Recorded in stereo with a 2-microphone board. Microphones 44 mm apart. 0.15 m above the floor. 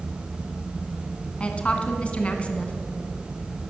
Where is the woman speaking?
30° left (ahead or behind), 1.5 m.